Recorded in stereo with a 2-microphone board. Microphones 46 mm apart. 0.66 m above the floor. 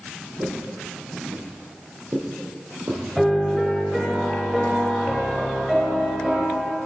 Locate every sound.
0.4 s footsteps: 50° right (ahead or behind), 1.6 m; by 3.7 s 40° right (ahead or behind), 1.9 m
3.2 s a piano: 5° right (ahead or behind), 1.1 m